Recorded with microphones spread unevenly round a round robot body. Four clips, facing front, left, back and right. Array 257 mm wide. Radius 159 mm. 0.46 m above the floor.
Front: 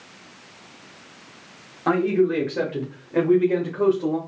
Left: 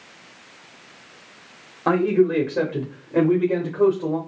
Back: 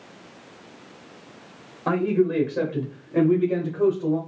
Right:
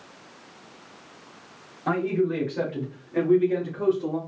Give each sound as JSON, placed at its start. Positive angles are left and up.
{"t": 1.9, "sound": "a man speaking", "azimuth_deg": 85, "distance_m": 1.2}